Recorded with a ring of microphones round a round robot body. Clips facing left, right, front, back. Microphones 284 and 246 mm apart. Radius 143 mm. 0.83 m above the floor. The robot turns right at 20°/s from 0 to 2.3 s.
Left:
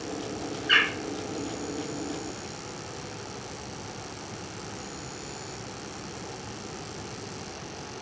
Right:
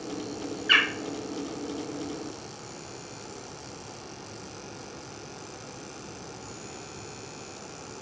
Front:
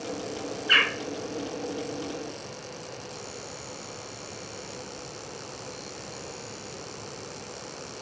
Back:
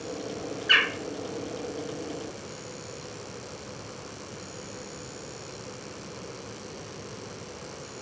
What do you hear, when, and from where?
0.7 s a bird: 155° right, 0.7 m; by 0.9 s 150° right, 0.7 m